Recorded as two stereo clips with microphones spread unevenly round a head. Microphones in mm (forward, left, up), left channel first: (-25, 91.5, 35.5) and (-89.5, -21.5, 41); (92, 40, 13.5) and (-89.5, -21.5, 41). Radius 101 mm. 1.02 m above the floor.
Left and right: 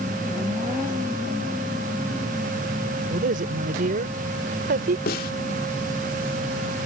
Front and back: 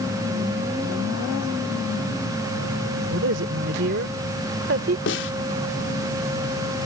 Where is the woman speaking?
130° right; by 5.0 s 115° right.